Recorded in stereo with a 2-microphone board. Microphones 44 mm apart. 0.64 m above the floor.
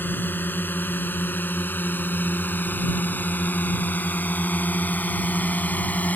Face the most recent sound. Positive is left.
turn(degrees=40)  # may be behind; listen again after turning